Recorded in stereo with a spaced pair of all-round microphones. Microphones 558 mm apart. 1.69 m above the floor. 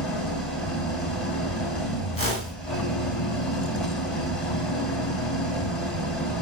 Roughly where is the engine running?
Left.